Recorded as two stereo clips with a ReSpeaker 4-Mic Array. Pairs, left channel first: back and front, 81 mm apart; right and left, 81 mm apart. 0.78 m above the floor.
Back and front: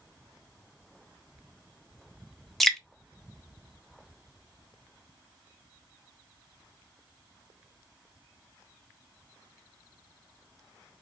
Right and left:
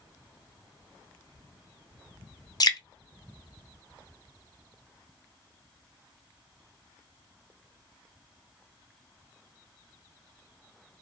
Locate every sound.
2.6 s dripping: 95° right, 0.6 m